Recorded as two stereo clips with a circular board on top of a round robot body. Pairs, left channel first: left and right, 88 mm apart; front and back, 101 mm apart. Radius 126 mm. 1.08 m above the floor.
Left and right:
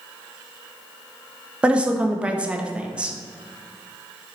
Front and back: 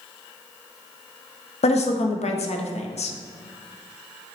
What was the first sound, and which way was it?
A woman speaking, 10° right.